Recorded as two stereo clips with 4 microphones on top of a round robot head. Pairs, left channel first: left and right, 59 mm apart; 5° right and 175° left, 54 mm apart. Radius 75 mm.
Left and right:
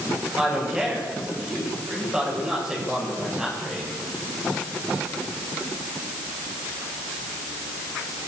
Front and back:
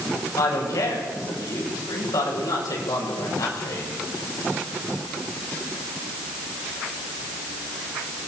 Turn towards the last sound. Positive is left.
turn(degrees=-15)